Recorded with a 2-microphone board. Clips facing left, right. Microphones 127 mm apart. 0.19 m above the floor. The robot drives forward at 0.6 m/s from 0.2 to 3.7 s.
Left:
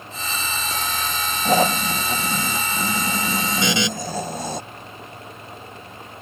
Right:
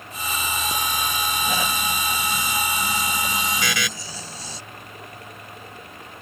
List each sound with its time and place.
1.4 s snoring: 50° left (ahead or behind); by 4.6 s 60° left (ahead or behind)
3.6 s a buzzer: 25° left (ahead or behind)